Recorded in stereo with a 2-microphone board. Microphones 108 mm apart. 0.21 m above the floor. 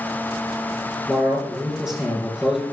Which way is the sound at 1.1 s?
5° right (ahead or behind).